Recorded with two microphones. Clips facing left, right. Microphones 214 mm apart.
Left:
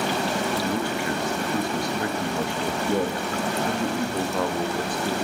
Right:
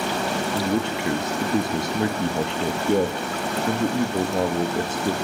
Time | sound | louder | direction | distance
0.6 | a man speaking | right 2 dB | 25° right (ahead or behind) | 0.8 m